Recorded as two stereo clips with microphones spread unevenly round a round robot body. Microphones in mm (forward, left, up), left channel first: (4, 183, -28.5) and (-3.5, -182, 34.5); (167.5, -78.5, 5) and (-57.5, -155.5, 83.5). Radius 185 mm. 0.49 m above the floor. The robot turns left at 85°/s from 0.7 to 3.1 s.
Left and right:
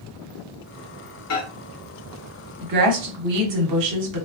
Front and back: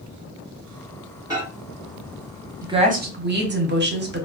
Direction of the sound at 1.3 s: 110° left.